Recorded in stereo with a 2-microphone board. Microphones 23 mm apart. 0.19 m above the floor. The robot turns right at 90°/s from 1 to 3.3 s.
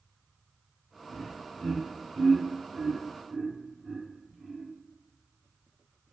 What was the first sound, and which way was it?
Laughter, 20° left (ahead or behind).